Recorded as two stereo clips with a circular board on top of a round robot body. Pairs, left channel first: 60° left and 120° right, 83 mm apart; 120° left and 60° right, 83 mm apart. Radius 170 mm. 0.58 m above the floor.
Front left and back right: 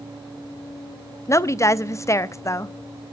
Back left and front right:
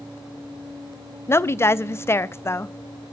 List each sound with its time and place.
1.3 s a woman speaking: 85° left, 0.7 m